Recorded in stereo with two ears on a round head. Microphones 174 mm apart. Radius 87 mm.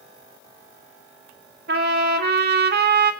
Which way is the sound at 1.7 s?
55° right (ahead or behind).